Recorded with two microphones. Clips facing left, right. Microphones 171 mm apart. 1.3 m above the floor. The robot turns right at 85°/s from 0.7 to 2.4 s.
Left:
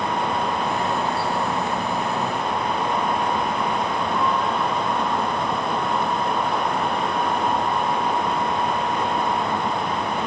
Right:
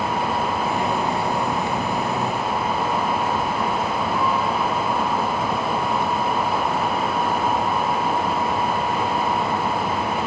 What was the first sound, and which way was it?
Only background noise.